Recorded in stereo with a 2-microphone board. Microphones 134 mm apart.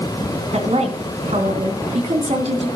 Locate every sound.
0.5 s a woman speaking: 55° right (ahead or behind), 3 m